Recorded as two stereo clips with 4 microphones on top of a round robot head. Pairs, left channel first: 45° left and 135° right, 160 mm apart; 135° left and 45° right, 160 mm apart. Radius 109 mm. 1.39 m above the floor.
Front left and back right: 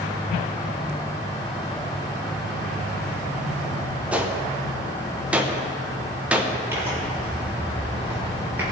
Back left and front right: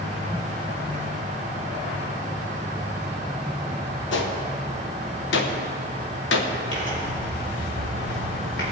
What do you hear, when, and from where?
4.1 s a gunshot: 140° left, 1.0 m
6.7 s tearing paper: 145° left, 3.5 m